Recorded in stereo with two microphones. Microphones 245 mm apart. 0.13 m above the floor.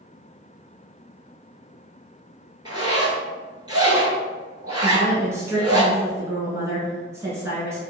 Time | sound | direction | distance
2.6 | a zipper | 20° right (ahead or behind) | 0.8 m
4.8 | a woman speaking | 10° right (ahead or behind) | 1.2 m